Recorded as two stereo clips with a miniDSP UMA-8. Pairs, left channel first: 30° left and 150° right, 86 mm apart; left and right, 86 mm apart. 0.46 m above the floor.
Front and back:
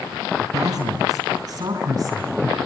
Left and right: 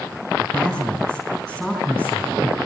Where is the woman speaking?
175° right, 4.5 m; by 2.6 s 165° left, 4.5 m.